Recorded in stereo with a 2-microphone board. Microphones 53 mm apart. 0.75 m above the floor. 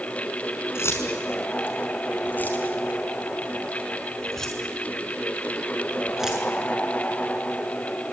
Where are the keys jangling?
60° left (ahead or behind), 5 m; by 6.5 s 10° right (ahead or behind), 6.5 m.